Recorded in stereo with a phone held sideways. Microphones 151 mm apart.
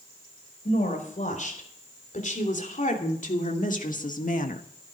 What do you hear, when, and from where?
0.7 s a woman speaking: 55° left (ahead or behind), 4.5 m; by 4.6 s 60° left (ahead or behind), 1.1 m